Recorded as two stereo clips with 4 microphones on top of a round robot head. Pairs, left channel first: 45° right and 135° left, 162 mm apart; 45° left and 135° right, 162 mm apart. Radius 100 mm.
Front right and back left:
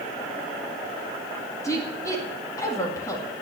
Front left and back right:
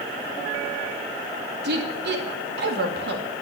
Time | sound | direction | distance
1.6 | a woman speaking | 120° right | 2 m